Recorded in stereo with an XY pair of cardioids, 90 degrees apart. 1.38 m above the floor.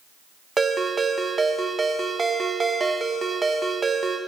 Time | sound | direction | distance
0.6 | a ringtone | 30° right | 1.0 m